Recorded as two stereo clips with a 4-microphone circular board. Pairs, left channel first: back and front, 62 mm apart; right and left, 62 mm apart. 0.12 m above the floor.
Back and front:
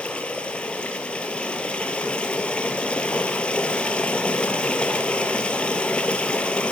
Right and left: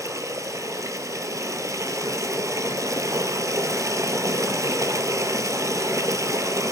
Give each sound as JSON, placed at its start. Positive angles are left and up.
{"t": 0.0, "sound": "running water", "azimuth_deg": 110, "distance_m": 0.8}